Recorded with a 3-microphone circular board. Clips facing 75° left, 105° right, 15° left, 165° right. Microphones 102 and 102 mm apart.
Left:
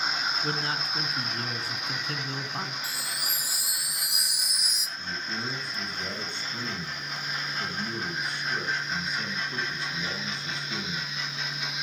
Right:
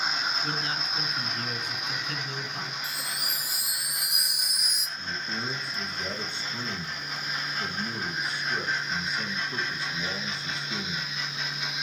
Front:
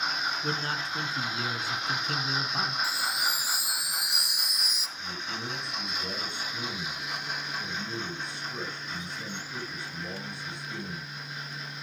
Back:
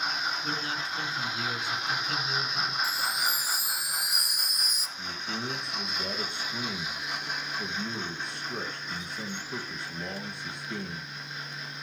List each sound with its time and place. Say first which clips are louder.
0.4 s a man speaking: left 1 dB, front 1 dB; 40° left, 2 m
2.8 s a chime: even, even; 130° right, 1.0 m
5.0 s a man speaking: even, back 2 dB; 170° left, 3 m